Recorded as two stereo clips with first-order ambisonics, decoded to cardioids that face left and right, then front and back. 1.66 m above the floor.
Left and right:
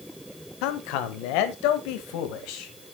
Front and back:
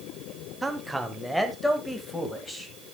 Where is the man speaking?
95° left, 1.1 m; by 2.7 s 80° left, 2 m.